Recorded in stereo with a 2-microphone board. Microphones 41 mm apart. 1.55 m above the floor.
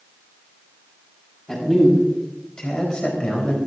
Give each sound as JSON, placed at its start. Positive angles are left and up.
{"t": 1.5, "sound": "a man speaking", "side_deg": 10, "distance_m": 6.0}